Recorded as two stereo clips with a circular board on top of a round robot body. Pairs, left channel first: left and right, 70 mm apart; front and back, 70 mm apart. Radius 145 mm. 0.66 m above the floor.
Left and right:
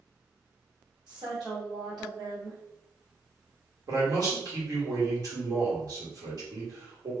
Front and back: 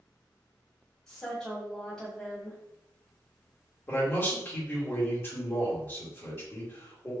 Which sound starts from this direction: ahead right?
A man speaking, at 3.9 s.